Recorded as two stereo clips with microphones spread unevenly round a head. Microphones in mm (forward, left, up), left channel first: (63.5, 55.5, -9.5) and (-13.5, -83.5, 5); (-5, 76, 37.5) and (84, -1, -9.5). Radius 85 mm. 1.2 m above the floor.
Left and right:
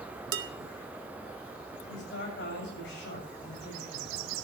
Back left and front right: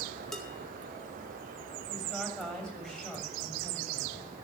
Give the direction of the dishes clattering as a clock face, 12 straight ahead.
5 o'clock.